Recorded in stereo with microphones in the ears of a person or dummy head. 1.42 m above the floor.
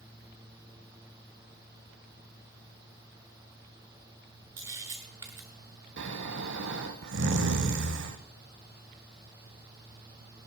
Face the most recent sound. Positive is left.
turn(degrees=-60)  # may be behind; listen again after turning